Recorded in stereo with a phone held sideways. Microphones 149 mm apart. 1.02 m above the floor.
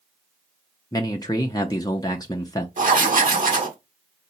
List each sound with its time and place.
0.9 s a man speaking: 25° left (ahead or behind), 0.5 m
2.8 s writing: 60° right (ahead or behind), 1.4 m